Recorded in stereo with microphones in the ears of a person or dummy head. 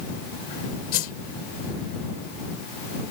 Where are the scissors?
I don't hear scissors.